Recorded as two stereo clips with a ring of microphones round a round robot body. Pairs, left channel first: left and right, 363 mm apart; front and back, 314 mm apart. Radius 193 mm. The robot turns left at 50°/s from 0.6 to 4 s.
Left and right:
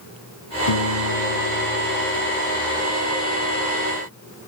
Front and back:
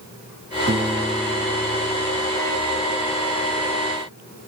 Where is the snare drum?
No snare drum in this recording.